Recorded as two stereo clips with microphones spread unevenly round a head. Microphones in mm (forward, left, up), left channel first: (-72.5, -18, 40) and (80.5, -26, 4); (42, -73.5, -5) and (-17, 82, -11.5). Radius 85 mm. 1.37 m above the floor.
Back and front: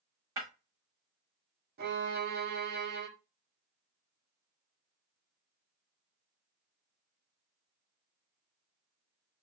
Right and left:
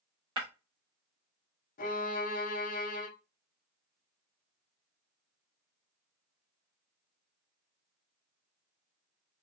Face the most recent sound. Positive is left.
turn(degrees=-30)